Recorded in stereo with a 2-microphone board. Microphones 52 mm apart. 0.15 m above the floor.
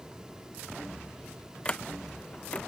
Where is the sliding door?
20° left (ahead or behind).